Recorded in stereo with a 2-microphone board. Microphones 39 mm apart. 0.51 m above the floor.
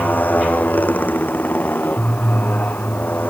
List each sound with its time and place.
0.0 s a motorcycle: 50° left (ahead or behind)